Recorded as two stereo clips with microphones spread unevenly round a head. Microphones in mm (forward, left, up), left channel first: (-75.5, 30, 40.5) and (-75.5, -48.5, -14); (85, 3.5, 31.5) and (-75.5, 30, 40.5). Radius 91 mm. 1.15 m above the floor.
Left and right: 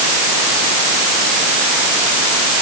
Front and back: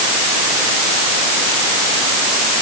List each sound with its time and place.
Only background noise.